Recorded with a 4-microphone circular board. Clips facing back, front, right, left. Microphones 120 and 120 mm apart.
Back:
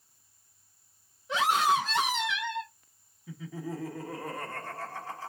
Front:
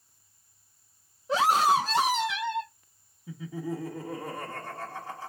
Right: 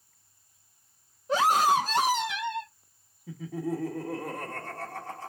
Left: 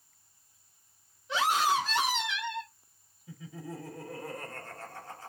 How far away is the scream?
About 0.6 m.